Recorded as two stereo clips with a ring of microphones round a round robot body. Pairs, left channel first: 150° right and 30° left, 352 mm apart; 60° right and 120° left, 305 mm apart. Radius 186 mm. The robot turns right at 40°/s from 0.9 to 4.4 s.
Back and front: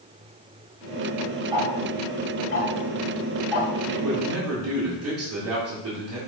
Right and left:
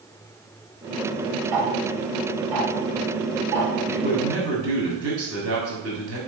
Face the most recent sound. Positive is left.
turn(degrees=80)